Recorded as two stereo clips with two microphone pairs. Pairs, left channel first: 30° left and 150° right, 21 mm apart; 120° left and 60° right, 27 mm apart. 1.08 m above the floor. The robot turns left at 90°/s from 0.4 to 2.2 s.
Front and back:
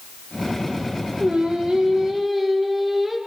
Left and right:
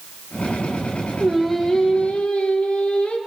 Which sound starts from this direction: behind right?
Singing, at 1.2 s.